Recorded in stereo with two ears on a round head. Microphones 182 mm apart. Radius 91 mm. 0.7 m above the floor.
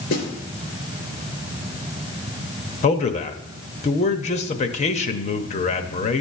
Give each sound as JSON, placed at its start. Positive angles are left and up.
{"t": 0.1, "sound": "a snare drum", "side_deg": 50, "distance_m": 3.5}
{"t": 2.8, "sound": "a man speaking", "side_deg": 35, "distance_m": 0.9}